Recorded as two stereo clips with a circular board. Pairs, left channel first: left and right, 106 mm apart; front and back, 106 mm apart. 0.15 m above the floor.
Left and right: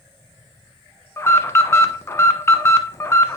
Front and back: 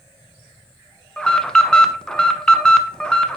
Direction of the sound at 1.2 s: 75° left.